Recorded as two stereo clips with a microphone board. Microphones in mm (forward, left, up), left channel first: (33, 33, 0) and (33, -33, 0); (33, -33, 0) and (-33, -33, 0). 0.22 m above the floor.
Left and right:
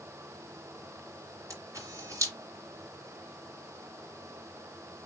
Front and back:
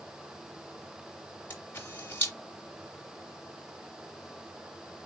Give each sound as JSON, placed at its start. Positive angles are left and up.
{"t": 1.5, "sound": "a camera shutter", "azimuth_deg": -55, "distance_m": 2.5}